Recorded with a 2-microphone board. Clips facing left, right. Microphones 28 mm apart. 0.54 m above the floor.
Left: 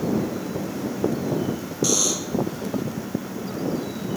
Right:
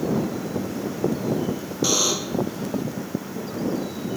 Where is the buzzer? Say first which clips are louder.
Right 1 dB; 25° right (ahead or behind).